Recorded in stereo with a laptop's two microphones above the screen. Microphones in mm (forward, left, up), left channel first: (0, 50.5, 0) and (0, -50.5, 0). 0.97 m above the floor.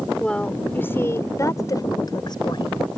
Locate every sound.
0.2 s a woman speaking: 10° left (ahead or behind); by 2.8 s 50° left (ahead or behind)